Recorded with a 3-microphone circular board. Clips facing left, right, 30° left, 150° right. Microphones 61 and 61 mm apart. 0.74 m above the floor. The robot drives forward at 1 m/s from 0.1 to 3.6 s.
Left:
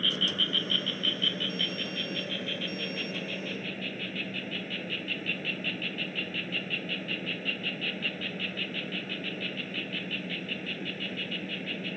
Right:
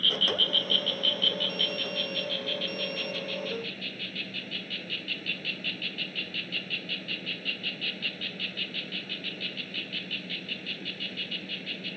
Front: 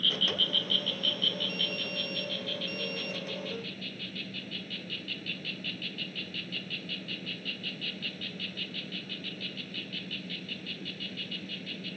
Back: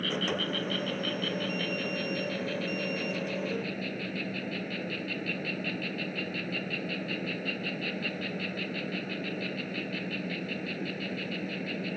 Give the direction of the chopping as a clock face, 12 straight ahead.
I don't hear chopping.